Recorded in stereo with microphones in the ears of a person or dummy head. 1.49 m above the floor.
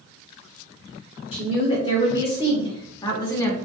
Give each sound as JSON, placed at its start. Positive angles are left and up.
{"t": 1.3, "sound": "a woman speaking", "side_deg": 40, "distance_m": 2.0}